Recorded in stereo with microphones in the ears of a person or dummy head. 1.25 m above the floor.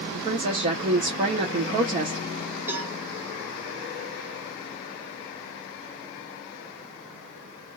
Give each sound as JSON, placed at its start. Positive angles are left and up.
{"t": 0.1, "sound": "a woman speaking", "side_deg": -45, "distance_m": 0.7}
{"t": 2.7, "sound": "a cowbell", "side_deg": -20, "distance_m": 0.8}